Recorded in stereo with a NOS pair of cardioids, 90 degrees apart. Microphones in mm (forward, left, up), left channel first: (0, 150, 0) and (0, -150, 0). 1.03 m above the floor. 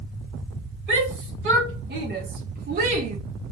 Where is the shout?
40° right, 1.5 m; by 3.2 s 55° right, 0.5 m.